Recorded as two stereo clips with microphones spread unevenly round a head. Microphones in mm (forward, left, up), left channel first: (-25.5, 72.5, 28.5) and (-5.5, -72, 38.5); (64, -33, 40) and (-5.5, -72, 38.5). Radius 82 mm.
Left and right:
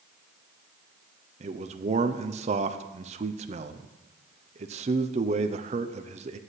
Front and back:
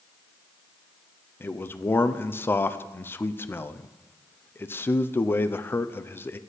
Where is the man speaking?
35° right, 0.7 m.